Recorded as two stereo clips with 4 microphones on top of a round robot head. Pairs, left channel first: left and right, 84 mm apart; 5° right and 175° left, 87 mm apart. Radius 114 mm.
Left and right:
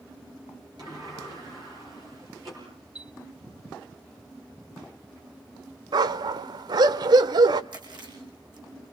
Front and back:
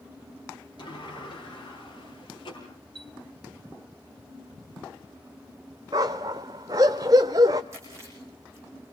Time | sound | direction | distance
0.8 | a sliding door | 45° right | 8 m
3.0 | a chime | 165° right | 3 m
5.9 | a dog barking | 125° right | 0.6 m
7.7 | chewing | 120° right | 8 m